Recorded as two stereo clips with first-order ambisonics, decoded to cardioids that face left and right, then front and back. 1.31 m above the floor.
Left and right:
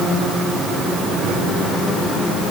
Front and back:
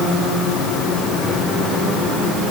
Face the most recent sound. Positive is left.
No sound to turn to.